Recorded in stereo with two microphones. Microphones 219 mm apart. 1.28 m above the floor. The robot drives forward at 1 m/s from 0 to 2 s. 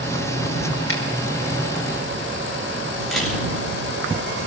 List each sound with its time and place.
0.9 s a finger snap: 70° left (ahead or behind), 5 m; by 1.0 s 65° left (ahead or behind), 5 m
3.1 s a camera shutter: centre (ahead or behind), 9 m